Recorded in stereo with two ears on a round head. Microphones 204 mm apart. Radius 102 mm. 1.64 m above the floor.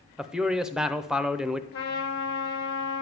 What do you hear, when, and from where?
0.2 s a man speaking: 5° right (ahead or behind), 0.6 m
1.7 s a trumpet: 50° left (ahead or behind), 2.5 m